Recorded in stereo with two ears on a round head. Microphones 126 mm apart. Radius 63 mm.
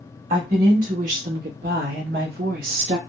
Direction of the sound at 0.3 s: 55° right (ahead or behind).